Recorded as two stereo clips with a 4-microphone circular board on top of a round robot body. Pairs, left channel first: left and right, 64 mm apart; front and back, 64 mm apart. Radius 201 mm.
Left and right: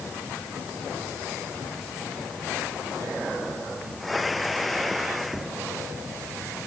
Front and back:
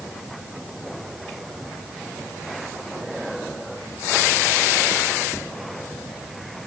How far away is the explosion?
No explosion in this recording.